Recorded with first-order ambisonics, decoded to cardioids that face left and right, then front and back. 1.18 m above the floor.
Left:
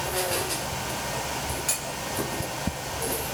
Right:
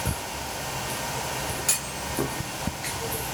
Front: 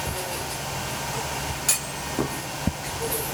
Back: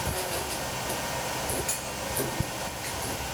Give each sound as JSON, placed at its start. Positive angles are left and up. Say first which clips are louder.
{"t": 1.7, "sound": "a clunk", "louder": "right 1 dB, front 4 dB", "azimuth_deg": -25, "distance_m": 1.1}